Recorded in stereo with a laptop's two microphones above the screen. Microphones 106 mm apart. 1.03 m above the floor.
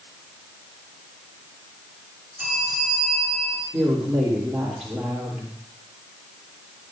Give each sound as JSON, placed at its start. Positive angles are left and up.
{"t": 2.4, "sound": "a bell", "side_deg": -25, "distance_m": 8.5}
{"t": 3.7, "sound": "a woman speaking", "side_deg": -15, "distance_m": 3.0}